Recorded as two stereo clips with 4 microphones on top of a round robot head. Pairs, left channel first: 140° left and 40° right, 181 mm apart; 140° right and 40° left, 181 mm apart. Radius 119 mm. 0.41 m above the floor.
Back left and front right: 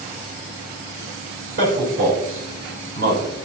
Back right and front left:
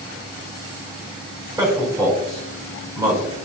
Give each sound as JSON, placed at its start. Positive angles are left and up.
{"t": 1.6, "sound": "a man speaking", "azimuth_deg": -30, "distance_m": 3.5}